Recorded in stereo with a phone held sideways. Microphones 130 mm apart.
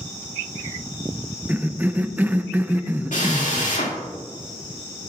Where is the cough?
15° right (ahead or behind), 0.6 m.